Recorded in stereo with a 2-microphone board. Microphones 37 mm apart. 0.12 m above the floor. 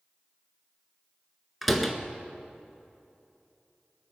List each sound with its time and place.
1.6 s a door slam: 5° right (ahead or behind), 1.3 m